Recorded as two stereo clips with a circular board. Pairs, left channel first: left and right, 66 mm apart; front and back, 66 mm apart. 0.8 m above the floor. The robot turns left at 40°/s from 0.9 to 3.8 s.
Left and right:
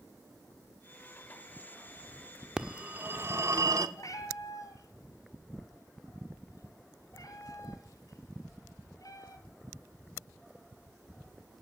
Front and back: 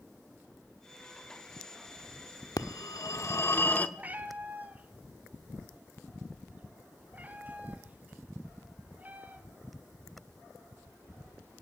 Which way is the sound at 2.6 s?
10° right.